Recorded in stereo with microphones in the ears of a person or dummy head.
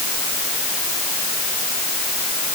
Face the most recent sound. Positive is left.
No sound to turn to.